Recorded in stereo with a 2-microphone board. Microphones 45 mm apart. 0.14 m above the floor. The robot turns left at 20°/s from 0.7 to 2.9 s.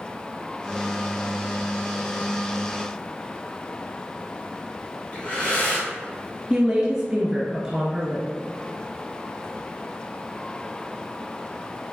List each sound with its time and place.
5.1 s breathing: 35° left (ahead or behind), 1.7 m
6.5 s a woman speaking: 20° right (ahead or behind), 1.7 m